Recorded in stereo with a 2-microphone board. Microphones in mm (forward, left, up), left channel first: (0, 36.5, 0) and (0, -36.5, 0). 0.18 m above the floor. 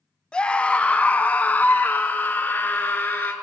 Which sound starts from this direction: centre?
A scream, at 0.3 s.